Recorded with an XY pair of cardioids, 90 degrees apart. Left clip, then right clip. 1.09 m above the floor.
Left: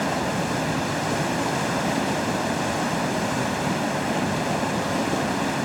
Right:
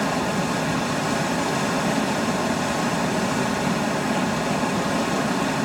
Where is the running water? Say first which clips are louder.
Right 1 dB; 10° right, 3 m.